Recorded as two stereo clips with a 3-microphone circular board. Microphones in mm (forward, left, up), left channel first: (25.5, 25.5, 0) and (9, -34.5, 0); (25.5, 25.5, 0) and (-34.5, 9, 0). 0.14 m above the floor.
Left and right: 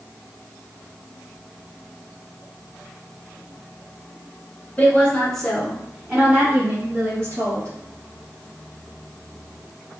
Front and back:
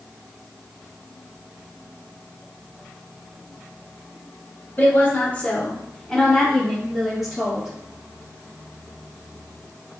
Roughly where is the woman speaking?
Ahead left.